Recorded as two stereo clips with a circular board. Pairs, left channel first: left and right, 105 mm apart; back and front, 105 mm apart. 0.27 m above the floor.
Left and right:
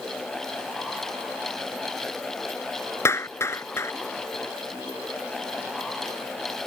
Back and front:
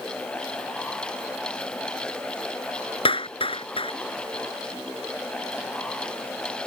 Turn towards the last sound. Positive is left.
turn(degrees=155)